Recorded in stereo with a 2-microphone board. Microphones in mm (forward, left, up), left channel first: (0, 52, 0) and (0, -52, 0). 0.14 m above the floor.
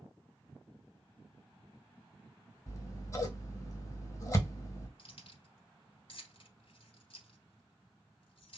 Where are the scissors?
30° left (ahead or behind), 1.1 m.